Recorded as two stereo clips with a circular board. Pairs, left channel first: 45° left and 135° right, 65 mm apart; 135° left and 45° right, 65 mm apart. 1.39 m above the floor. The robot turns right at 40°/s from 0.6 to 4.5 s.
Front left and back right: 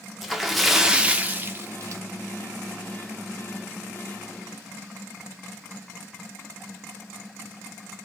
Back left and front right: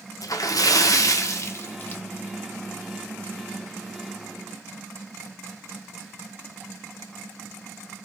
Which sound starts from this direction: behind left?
A splash, at 0.2 s.